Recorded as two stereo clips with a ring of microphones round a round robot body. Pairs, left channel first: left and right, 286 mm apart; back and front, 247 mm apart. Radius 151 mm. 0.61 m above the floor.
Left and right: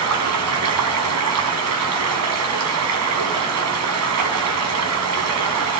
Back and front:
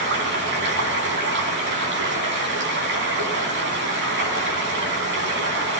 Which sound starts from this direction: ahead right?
Running water, at 0.0 s.